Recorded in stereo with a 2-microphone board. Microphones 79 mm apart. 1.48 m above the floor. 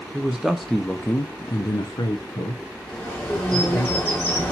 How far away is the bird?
About 1.5 m.